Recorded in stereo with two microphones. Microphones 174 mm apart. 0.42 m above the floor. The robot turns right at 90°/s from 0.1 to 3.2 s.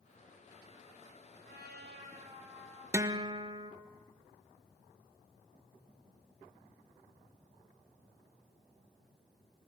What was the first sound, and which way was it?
A trumpet, 105° right.